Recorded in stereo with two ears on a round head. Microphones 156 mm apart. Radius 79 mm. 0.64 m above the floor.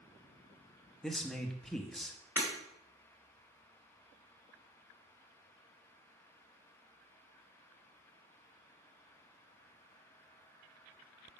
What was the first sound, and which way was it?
A man speaking, 5° left (ahead or behind).